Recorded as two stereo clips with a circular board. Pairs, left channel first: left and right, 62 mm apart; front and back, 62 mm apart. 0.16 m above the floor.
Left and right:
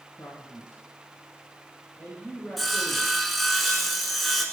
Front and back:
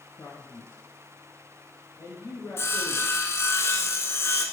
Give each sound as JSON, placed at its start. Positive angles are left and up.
{"t": 0.2, "sound": "a man speaking", "azimuth_deg": 45, "distance_m": 1.9}
{"t": 2.6, "sound": "sawing", "azimuth_deg": 0, "distance_m": 1.2}